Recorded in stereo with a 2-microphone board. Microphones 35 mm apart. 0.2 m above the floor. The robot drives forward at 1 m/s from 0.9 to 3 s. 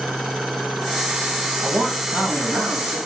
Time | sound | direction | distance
1.6 | a man speaking | 75° right (ahead or behind) | 6.5 m